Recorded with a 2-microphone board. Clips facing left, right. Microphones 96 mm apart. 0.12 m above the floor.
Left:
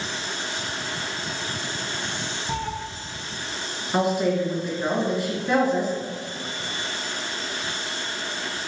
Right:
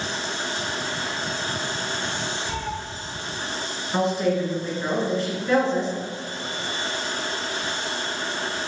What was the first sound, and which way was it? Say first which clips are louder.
A cat meowing: left 1 dB; 35° left (ahead or behind).